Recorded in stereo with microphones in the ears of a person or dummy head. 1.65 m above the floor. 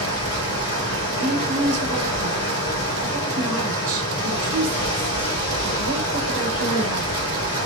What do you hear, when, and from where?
0.0 s running water: 70° left (ahead or behind), 2.5 m
1.2 s a woman speaking: 90° right, 1.7 m